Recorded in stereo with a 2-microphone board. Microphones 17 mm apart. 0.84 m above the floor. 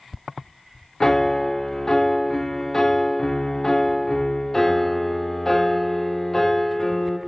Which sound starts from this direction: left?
A piano, at 1.0 s.